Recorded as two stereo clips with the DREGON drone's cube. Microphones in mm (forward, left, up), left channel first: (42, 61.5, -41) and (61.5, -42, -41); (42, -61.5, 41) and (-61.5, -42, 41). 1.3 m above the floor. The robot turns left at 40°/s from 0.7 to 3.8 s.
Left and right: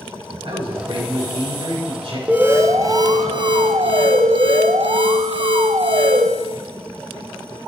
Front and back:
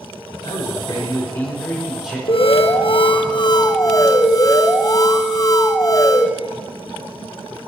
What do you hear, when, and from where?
0.4 s a man speaking: 50° right, 5 m; by 2.2 s 110° right, 5 m
2.3 s an alarm: 5° right, 0.9 m; by 6.3 s 65° right, 0.9 m